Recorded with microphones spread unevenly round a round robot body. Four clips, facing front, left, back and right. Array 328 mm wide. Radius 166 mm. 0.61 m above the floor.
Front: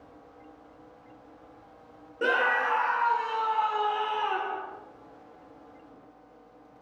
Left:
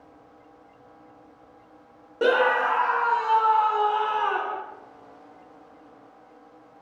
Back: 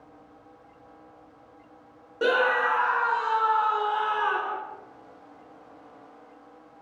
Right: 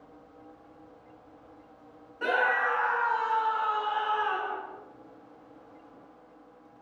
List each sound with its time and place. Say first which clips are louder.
2.2 s a scream: left 6 dB, back 3 dB; 90° left, 0.8 m; by 4.6 s 105° left, 2.5 m